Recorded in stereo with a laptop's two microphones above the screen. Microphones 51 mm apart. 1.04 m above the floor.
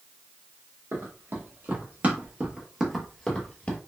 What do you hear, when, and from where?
0.9 s running footsteps: 55° right (ahead or behind), 1.8 m; by 3.8 s 30° left (ahead or behind), 1.2 m